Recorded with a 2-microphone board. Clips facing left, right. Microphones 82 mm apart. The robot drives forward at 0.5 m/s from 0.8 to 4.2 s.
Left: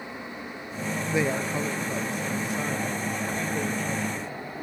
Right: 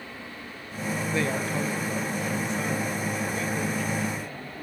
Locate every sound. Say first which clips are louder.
1.1 s a woman speaking: left 2 dB; 15° left (ahead or behind), 0.5 m; by 4.6 s 5° left (ahead or behind), 2.0 m